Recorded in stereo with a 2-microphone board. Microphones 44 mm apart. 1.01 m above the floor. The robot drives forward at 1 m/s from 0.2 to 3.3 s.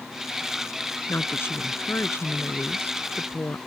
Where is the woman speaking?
55° left (ahead or behind); by 3.6 s 50° left (ahead or behind).